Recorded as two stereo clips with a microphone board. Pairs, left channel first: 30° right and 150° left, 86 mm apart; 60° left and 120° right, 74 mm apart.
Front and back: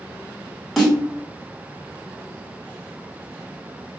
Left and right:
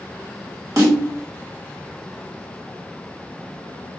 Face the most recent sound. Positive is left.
turn(degrees=-125)